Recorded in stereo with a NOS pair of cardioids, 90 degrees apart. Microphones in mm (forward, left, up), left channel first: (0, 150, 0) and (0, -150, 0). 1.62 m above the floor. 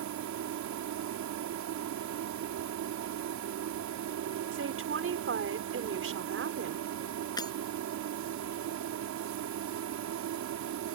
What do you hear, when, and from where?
0.0 s a machine running: 70° right
4.5 s a woman speaking: 45° right
7.4 s breaking glass: 15° left